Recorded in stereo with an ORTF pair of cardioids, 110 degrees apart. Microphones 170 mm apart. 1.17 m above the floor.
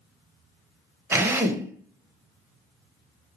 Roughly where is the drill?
Ahead.